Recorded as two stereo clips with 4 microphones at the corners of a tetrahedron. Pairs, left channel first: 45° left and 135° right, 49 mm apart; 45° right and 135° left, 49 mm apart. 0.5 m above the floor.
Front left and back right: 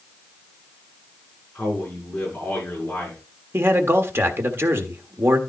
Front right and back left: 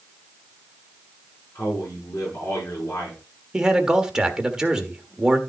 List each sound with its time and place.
1.6 s a man speaking: 10° right, 5.5 m
3.5 s a man speaking: 155° right, 1.5 m